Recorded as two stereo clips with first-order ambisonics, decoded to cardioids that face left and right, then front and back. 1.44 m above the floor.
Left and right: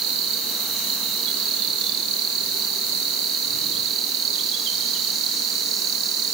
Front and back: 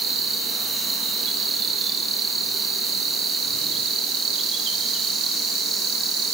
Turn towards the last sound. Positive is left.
turn(degrees=-125)